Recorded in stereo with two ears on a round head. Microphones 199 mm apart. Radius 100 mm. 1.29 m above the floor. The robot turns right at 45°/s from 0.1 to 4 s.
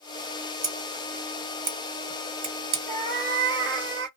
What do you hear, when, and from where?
0.6 s scissors: 5° right (ahead or behind), 1.7 m; by 2.8 s 60° right (ahead or behind), 1.7 m
2.9 s a cat meowing: 140° right, 0.9 m; by 4.1 s 90° right, 0.9 m